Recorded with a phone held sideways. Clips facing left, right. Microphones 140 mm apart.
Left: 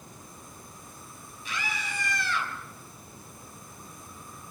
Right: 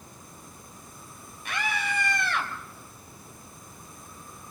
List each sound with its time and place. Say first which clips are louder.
1.4 s a scream: right 5 dB; 65° right (ahead or behind), 6 m